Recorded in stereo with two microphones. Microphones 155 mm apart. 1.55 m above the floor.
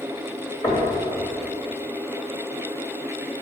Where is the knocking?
35° left (ahead or behind), 1.9 m.